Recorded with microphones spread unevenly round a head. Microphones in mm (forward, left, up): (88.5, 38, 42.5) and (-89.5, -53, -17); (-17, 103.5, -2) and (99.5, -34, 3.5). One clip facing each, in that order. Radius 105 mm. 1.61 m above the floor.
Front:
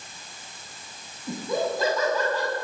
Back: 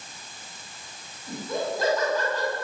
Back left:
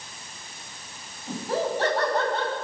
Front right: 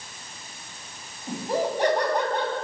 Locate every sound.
1.3 s laughter: 25° left, 9 m